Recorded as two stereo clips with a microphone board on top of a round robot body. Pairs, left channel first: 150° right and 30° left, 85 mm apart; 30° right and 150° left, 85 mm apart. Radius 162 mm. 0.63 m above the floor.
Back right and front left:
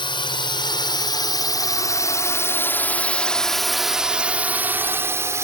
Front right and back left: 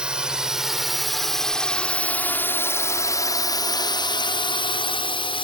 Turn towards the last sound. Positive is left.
turn(degrees=-25)